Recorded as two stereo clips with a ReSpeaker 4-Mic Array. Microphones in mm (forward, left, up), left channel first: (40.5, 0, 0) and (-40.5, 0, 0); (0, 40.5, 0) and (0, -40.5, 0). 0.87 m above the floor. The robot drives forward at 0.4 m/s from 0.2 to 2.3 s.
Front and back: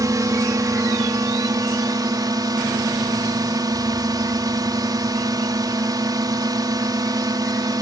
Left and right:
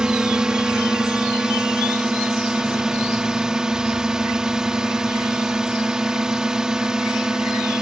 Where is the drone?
170° right.